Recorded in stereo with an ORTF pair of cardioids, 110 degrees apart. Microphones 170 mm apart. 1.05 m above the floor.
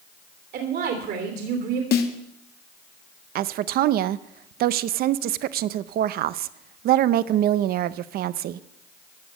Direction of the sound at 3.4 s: 65° right.